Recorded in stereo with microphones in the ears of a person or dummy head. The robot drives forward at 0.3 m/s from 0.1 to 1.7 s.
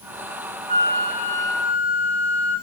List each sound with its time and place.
0.7 s a flute: 40° right (ahead or behind), 1.3 m